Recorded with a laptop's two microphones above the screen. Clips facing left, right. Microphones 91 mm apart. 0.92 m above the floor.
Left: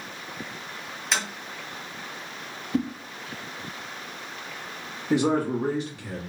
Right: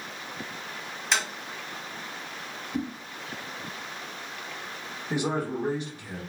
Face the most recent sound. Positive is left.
turn(degrees=75)  # may be behind; listen again after turning